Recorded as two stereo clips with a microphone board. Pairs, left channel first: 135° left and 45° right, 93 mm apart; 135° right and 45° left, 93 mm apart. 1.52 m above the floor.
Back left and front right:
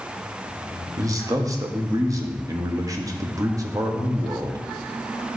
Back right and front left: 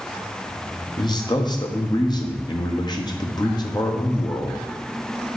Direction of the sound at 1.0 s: 95° right.